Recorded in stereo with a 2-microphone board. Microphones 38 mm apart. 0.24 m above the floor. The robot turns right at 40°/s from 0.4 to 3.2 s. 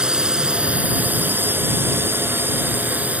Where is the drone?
20° right (ahead or behind); by 3.2 s 40° right (ahead or behind).